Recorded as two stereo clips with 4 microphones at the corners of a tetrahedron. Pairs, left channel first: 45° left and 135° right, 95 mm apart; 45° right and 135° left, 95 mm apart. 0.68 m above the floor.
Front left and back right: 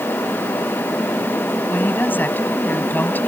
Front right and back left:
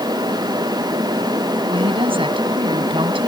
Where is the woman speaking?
115° left.